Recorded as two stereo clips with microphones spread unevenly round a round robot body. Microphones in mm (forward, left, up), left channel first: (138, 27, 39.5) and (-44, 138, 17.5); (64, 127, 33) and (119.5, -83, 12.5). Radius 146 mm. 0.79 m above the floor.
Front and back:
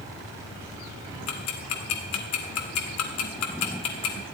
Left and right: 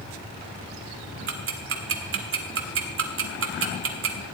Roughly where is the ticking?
Ahead right.